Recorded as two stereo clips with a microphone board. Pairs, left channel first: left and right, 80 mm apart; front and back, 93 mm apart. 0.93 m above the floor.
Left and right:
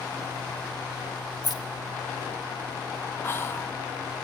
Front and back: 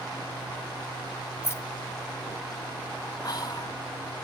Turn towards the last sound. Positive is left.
turn(degrees=35)